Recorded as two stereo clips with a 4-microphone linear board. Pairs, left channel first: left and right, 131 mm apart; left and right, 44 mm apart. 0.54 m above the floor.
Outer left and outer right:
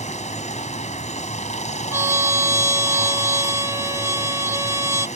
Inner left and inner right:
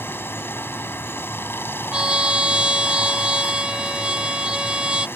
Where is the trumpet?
20° right (ahead or behind).